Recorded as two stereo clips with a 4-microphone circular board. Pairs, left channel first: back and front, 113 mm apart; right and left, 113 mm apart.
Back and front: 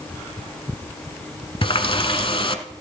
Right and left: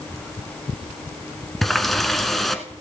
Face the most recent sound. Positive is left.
turn(degrees=180)